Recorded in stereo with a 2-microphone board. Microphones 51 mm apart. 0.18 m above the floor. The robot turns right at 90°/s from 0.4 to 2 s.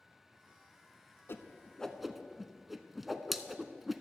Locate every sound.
1.3 s a whoosh: 50° left (ahead or behind), 0.5 m; by 4.0 s 5° right (ahead or behind), 0.5 m